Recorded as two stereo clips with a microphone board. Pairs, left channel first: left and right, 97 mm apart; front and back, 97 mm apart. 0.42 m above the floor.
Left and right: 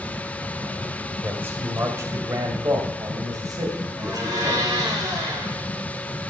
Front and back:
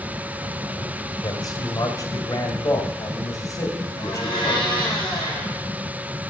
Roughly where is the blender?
Ahead right.